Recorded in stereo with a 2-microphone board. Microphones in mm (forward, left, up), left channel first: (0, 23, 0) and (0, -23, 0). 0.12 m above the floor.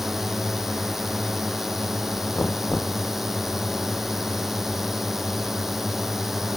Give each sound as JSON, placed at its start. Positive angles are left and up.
{"t": 0.0, "sound": "a drone", "side_deg": -5}
{"t": 2.4, "sound": "knocking", "side_deg": 50}